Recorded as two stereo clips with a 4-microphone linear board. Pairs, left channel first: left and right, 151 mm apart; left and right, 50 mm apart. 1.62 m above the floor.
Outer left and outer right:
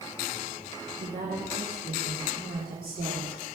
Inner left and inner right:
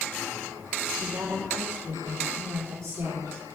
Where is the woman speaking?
85° right, 3.5 m; by 3.4 s 70° right (ahead or behind), 5 m.